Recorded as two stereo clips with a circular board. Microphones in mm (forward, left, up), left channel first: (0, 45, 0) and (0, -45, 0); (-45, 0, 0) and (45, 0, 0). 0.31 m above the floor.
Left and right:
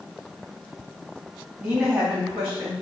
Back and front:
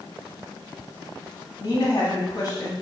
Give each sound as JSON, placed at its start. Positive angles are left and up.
{"t": 1.6, "sound": "a woman speaking", "azimuth_deg": -145, "distance_m": 1.7}